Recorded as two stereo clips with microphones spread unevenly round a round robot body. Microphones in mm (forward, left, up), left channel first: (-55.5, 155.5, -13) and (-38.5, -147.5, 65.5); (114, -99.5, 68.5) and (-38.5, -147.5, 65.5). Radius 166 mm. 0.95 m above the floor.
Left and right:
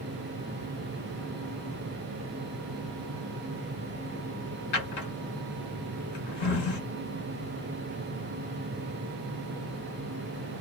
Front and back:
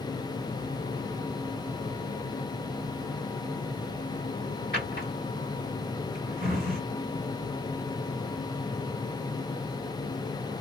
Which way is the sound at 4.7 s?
90° left.